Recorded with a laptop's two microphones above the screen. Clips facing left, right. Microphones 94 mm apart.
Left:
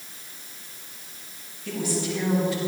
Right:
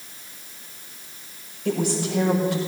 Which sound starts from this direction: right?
A woman speaking, at 1.6 s.